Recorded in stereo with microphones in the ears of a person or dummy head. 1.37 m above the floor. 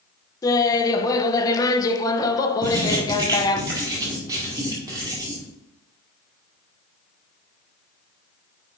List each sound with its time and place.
0.4 s laughter: 15° left (ahead or behind), 0.9 m
2.6 s writing: 25° right (ahead or behind), 1.8 m